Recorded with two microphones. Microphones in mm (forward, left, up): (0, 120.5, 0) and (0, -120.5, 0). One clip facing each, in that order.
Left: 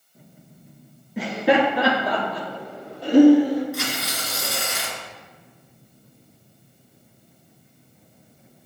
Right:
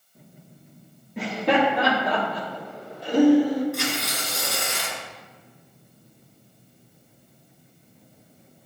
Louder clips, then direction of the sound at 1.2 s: Left 3 dB; 5° left (ahead or behind).